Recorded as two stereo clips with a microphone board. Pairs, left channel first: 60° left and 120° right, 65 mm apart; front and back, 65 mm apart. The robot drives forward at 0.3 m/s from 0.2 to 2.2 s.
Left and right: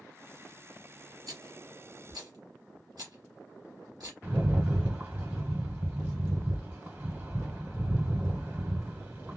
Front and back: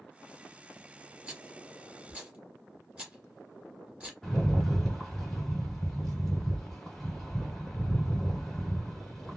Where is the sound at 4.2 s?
85° right, 1.2 m.